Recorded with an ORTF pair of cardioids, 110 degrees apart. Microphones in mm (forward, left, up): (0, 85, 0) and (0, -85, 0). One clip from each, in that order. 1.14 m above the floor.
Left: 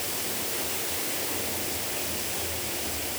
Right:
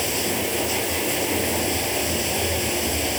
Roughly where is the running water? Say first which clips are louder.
Right 8 dB; ahead right.